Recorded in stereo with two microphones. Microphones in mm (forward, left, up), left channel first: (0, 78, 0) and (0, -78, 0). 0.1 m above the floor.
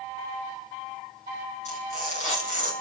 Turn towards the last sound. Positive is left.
turn(degrees=50)  # may be behind; listen again after turning